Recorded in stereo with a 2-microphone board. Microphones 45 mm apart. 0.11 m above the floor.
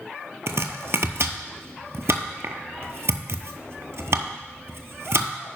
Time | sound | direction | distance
0.5 | chopping | 65° right (ahead or behind) | 0.8 m